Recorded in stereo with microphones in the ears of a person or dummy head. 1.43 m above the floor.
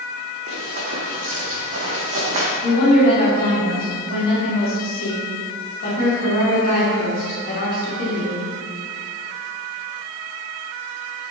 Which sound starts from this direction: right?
Running footsteps, at 0.5 s.